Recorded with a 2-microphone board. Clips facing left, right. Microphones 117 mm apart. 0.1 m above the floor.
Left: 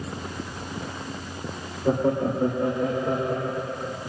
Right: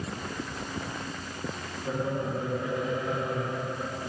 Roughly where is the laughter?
Left.